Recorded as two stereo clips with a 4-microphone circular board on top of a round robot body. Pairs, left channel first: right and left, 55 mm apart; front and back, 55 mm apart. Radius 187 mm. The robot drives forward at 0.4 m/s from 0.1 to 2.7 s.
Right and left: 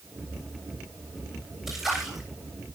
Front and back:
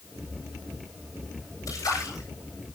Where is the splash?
5° left, 7.5 m.